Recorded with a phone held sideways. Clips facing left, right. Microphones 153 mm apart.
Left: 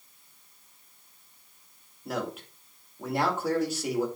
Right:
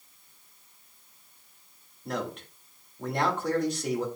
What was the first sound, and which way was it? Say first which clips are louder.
A man speaking: even; 5° left (ahead or behind).